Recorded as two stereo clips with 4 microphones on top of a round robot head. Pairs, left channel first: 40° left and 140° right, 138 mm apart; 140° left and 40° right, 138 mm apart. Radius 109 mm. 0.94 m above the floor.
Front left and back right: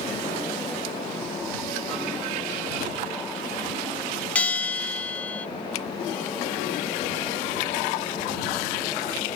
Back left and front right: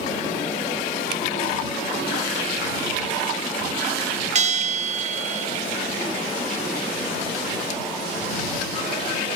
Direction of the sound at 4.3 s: 40° right.